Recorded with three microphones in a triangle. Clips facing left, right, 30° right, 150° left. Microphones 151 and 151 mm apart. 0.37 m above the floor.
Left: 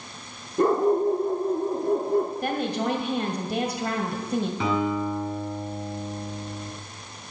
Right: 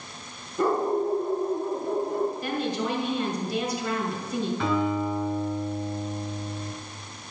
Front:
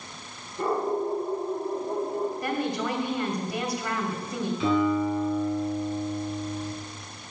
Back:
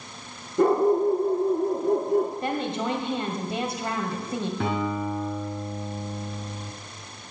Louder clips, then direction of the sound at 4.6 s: Right 2 dB, front 7 dB; 165° left.